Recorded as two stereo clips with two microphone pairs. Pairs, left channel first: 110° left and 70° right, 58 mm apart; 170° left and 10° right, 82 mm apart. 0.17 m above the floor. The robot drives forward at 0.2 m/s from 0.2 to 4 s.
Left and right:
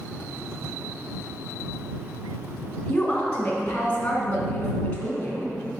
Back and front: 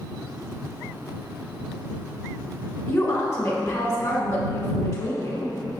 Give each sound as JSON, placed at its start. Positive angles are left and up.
{"t": 2.9, "sound": "a woman speaking", "azimuth_deg": 160, "distance_m": 1.7}